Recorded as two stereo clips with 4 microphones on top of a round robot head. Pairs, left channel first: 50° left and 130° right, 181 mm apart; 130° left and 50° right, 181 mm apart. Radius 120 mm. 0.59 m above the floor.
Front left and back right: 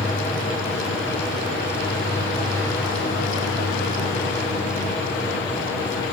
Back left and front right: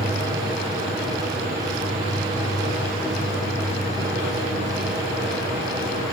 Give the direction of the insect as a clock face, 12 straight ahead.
12 o'clock.